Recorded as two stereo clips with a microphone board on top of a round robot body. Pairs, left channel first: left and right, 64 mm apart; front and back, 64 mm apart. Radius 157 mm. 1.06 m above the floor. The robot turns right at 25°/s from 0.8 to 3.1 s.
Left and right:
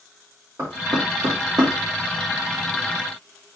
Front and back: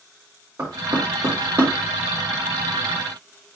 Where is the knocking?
135° right, 2.5 m; by 1.7 s 110° right, 2.5 m.